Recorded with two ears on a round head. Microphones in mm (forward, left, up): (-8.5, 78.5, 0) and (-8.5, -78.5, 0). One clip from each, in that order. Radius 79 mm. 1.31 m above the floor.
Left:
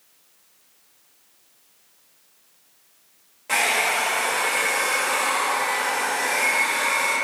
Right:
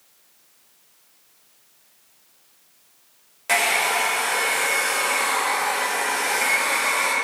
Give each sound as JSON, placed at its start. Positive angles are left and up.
{"t": 3.5, "sound": "a hair dryer", "side_deg": -40, "distance_m": 0.7}